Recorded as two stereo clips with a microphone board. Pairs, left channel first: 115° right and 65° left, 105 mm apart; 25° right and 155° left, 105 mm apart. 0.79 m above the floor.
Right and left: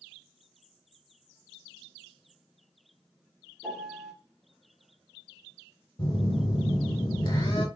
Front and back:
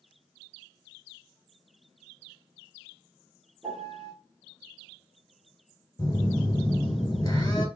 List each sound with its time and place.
3.6 s a piano: 150° left, 1.2 m
6.0 s a phone buzzing: 75° right, 1.5 m